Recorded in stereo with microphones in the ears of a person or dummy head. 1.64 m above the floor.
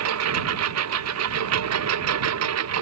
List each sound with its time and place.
0.0 s a lawn mower: 85° right